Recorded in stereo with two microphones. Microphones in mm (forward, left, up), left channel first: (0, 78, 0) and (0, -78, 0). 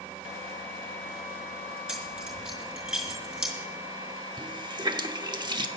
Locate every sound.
1.9 s keys jangling: 5° right (ahead or behind), 5 m
4.4 s a running tap: 30° right (ahead or behind), 0.9 m